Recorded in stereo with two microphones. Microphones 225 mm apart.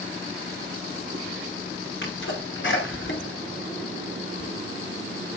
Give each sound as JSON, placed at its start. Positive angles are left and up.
{"t": 2.0, "sound": "a sneeze", "side_deg": 60, "distance_m": 2.5}